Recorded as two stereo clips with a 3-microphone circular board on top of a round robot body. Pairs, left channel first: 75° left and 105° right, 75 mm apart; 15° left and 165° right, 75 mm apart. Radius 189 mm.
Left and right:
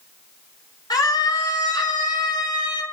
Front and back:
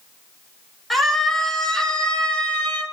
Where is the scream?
100° left, 7 m; by 2.8 s 85° left, 6 m.